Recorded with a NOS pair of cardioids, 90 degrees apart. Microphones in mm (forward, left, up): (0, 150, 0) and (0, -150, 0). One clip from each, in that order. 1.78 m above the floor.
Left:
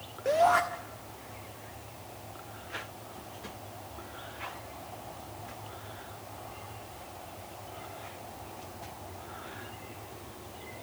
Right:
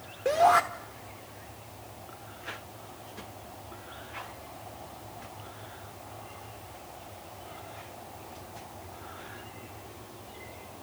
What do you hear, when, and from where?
0.2 s a shout: 20° right, 1.2 m